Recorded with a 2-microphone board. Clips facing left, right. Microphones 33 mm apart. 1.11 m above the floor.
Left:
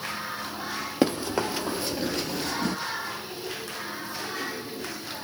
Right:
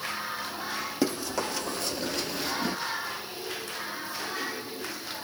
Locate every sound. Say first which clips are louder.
1.0 s running footsteps: left 5 dB; 35° left (ahead or behind), 1.3 m; by 2.8 s 10° right (ahead or behind), 1.1 m